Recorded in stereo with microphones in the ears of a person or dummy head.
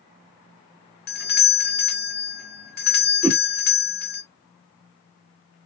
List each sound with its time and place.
1.1 s a doorbell: 45° left (ahead or behind), 0.9 m
3.2 s a whoosh: 10° right (ahead or behind), 1.0 m